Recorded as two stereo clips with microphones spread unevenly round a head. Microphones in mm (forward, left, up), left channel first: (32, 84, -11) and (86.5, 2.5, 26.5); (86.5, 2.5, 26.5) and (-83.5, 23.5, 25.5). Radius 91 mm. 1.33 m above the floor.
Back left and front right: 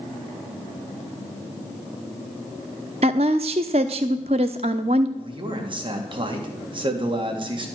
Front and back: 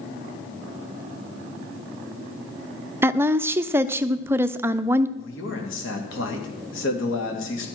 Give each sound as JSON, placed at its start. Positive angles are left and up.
{"t": 3.0, "sound": "a woman speaking", "azimuth_deg": -110, "distance_m": 0.7}
{"t": 5.2, "sound": "a man speaking", "azimuth_deg": -20, "distance_m": 2.5}